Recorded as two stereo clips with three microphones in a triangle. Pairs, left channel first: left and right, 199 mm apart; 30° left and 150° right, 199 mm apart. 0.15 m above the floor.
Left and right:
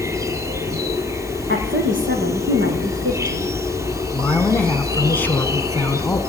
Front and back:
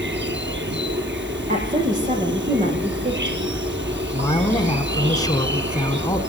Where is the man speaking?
30° left, 1.4 m.